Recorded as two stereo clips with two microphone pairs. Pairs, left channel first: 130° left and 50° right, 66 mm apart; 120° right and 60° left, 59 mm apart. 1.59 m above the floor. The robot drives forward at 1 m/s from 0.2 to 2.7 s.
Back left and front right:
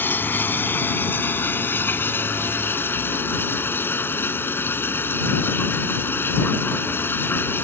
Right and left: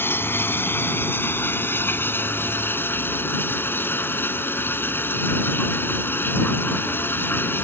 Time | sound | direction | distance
0.0 | running water | 170° right | ?